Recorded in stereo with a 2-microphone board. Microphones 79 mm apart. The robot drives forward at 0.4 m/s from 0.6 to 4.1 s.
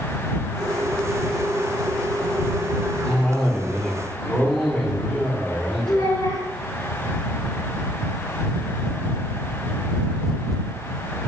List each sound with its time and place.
3.0 s a cough: 10° left (ahead or behind), 1.9 m
5.9 s a child speaking: 80° left, 4 m